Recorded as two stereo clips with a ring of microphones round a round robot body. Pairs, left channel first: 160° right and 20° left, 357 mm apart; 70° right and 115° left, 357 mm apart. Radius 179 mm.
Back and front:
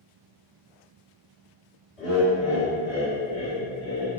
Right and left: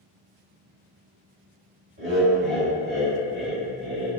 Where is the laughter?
115° left, 1.7 m; by 4.1 s 30° left, 1.8 m.